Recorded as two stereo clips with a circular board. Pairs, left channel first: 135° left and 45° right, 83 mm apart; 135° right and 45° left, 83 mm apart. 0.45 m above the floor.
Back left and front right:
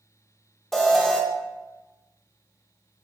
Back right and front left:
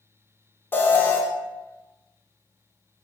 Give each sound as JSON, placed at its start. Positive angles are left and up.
{"t": 0.7, "sound": "an alarm", "azimuth_deg": -145, "distance_m": 0.5}